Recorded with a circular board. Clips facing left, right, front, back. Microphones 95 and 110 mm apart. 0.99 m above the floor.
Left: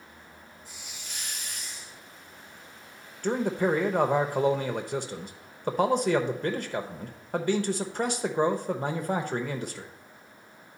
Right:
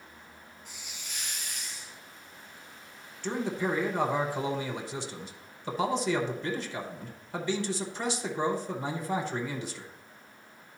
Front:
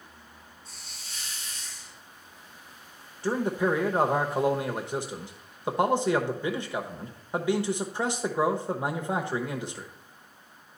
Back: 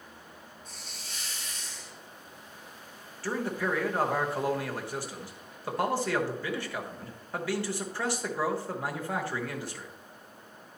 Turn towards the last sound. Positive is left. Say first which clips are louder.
# left 5 dB, front 5 dB
turn(degrees=65)